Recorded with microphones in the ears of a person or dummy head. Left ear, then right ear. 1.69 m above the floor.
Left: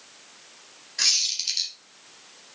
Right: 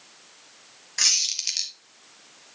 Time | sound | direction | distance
1.0 | a squeak | 60° right (ahead or behind) | 1.7 m